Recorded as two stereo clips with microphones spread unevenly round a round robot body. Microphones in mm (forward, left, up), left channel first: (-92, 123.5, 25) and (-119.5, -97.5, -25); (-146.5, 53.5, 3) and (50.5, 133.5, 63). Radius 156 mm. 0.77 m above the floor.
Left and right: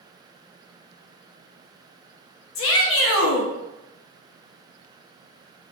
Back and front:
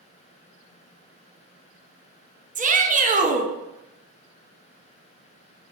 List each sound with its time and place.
2.5 s a shout: 85° left, 0.6 m